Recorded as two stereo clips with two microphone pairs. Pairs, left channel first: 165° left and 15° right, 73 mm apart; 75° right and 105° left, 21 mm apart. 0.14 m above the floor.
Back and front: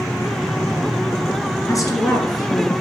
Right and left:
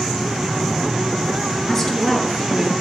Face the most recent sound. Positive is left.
turn(degrees=-160)